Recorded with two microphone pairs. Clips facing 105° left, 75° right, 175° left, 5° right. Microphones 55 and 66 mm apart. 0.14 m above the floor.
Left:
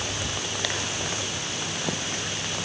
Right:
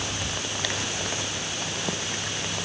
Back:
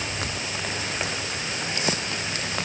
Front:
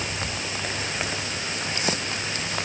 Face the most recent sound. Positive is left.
No sound to turn to.